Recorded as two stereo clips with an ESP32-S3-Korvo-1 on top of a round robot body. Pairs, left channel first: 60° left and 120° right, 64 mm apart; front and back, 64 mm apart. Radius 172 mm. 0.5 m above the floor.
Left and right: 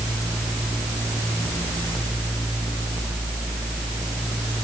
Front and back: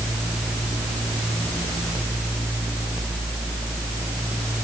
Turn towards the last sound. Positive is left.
No sound to turn to.